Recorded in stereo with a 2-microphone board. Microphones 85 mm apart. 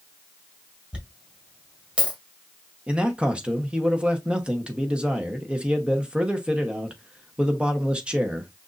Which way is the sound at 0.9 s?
15° right (ahead or behind).